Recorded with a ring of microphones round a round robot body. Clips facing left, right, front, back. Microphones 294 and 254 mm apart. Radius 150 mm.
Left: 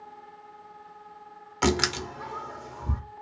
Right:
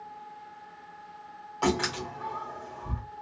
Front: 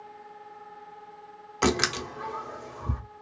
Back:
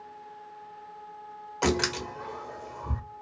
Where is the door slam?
60° left, 0.7 m.